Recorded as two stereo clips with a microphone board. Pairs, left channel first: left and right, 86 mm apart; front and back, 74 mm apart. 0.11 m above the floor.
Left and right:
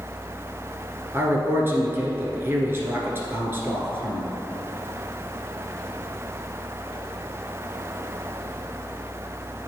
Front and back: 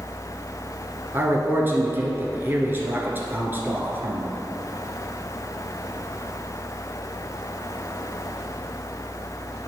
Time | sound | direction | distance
1.1 | a man speaking | 135° right | 1.5 m